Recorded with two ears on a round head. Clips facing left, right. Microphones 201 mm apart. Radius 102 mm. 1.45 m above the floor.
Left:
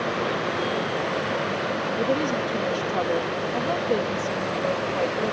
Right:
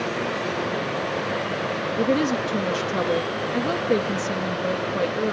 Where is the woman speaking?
30° right (ahead or behind).